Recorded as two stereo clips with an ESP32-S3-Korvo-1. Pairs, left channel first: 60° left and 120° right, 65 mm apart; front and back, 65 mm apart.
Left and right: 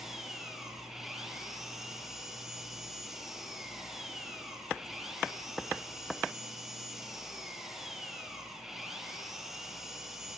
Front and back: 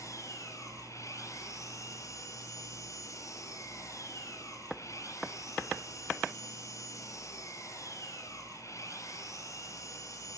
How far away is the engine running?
About 7 m.